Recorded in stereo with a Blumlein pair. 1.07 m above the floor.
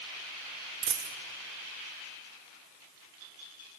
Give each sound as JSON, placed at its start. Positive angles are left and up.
{"t": 0.8, "sound": "a dropped coin", "azimuth_deg": -30, "distance_m": 1.4}